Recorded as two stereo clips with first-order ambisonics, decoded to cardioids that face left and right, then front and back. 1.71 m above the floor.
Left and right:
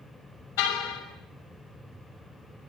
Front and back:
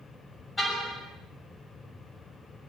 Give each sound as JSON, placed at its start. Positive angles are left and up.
{"t": 0.6, "sound": "a car horn", "azimuth_deg": 80, "distance_m": 6.0}